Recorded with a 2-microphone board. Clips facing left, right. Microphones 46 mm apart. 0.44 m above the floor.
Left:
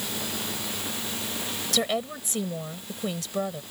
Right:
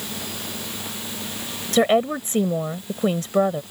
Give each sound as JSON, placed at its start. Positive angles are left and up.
{"t": 1.7, "sound": "a woman speaking", "side_deg": -35}